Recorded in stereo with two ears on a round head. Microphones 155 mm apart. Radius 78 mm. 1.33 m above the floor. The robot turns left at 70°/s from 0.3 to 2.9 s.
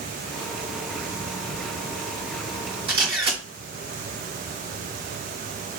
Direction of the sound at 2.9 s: 35° right (ahead or behind).